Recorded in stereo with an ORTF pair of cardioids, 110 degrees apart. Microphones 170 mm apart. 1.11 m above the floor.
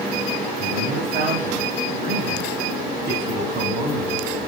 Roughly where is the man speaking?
Ahead right.